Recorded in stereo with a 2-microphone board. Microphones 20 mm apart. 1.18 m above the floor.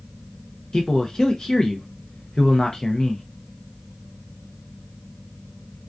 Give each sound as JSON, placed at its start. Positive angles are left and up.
{"t": 0.7, "sound": "a man speaking", "side_deg": 35, "distance_m": 0.5}